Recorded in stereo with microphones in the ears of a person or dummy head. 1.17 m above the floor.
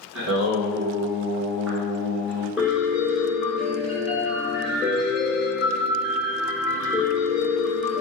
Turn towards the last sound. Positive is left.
turn(degrees=-5)  # may be behind; listen again after turning